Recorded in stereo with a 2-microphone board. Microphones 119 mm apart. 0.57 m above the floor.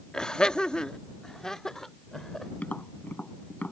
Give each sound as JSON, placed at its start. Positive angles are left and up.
{"t": 0.1, "sound": "laughter", "side_deg": 5}
{"t": 2.6, "sound": "tapping", "side_deg": 10}